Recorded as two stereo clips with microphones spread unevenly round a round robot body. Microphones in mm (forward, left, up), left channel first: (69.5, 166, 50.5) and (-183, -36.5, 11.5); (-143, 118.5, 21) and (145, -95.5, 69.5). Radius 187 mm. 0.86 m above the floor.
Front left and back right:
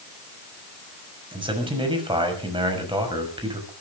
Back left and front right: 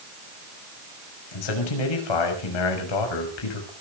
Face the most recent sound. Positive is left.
turn(degrees=145)